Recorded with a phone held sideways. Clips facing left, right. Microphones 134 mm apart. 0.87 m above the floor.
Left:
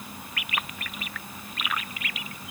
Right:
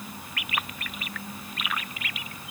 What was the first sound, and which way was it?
Only background noise.